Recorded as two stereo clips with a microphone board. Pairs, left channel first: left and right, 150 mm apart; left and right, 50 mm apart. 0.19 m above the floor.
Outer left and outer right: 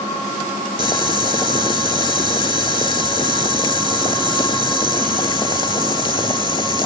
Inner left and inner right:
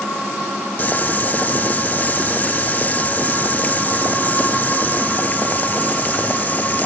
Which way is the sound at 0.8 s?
30° left (ahead or behind).